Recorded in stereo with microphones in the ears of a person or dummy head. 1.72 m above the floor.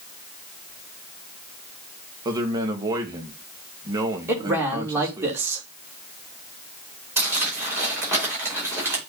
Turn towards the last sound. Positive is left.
turn(degrees=-5)  # may be behind; listen again after turning